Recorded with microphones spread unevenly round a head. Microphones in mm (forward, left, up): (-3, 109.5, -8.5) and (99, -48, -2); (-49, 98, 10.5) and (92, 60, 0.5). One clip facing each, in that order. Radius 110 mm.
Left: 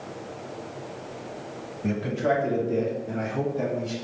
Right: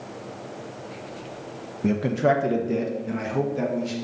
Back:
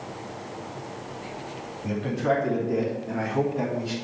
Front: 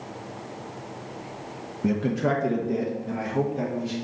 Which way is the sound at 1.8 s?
10° right.